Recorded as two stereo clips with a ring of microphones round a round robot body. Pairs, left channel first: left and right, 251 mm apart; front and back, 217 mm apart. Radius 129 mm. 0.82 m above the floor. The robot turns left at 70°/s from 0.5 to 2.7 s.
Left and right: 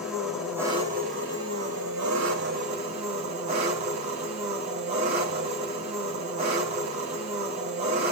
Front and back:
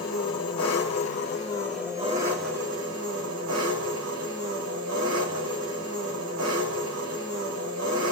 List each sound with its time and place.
0.0 s an engine running: straight ahead, 2.5 m; by 8.1 s 155° right, 2.5 m